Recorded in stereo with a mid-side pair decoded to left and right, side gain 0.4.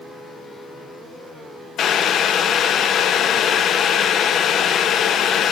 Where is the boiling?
70° left, 0.7 m.